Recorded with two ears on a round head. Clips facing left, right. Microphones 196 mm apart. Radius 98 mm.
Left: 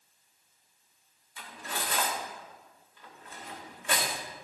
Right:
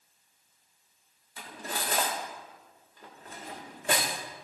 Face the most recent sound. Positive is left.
turn(degrees=-35)  # may be behind; listen again after turning